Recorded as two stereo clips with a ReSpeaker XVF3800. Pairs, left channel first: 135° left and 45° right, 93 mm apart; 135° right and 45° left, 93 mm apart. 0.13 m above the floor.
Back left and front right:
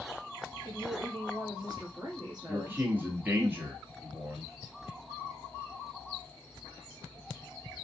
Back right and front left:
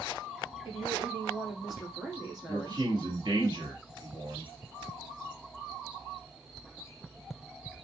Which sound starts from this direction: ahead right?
A woman speaking, at 0.7 s.